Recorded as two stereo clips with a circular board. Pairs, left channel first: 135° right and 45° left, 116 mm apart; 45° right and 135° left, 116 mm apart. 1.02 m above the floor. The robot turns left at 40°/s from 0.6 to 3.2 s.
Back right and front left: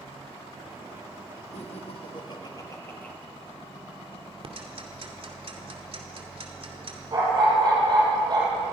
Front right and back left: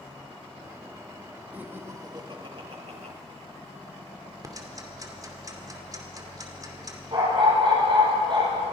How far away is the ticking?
About 2.5 m.